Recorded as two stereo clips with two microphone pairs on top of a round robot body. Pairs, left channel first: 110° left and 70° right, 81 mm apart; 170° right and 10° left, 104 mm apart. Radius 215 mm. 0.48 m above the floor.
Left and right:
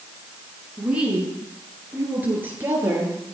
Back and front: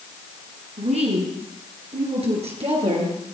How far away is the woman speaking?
About 7.5 m.